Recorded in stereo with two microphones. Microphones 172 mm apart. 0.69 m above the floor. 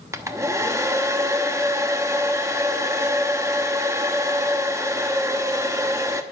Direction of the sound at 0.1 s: 15° right (ahead or behind).